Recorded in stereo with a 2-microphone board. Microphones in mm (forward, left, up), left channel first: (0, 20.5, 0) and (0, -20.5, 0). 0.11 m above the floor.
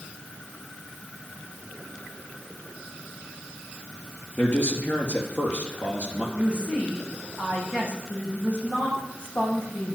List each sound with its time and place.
4.4 s a man speaking: 50° left (ahead or behind), 2.5 m
6.3 s a woman speaking: 30° left (ahead or behind), 6 m